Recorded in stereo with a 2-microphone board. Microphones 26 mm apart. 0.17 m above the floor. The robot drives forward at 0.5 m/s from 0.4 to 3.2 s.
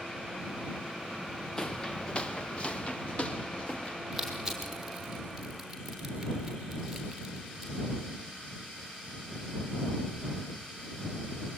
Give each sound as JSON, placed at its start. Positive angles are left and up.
{"t": 1.6, "sound": "footsteps", "side_deg": 20, "distance_m": 1.0}
{"t": 4.1, "sound": "crushing", "side_deg": -5, "distance_m": 5.0}